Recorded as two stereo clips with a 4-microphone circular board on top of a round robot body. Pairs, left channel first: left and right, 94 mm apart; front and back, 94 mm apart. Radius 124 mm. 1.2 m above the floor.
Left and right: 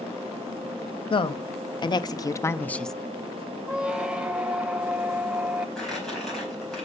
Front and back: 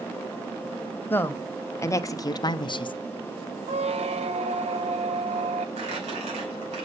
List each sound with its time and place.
1.1 s a woman speaking: 70° left, 1.3 m; by 2.9 s 5° left, 0.6 m
3.7 s a squeak: 170° right, 0.8 m
5.8 s crumpling: 175° left, 4 m